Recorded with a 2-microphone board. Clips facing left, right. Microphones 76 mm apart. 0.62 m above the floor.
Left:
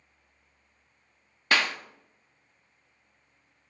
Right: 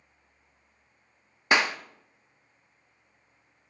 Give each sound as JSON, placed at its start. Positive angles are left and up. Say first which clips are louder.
{"t": 1.5, "sound": "a clap", "louder": "right 2 dB", "side_deg": -20, "distance_m": 0.5}